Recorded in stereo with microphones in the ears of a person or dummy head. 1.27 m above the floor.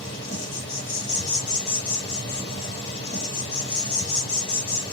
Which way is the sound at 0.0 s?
30° left (ahead or behind).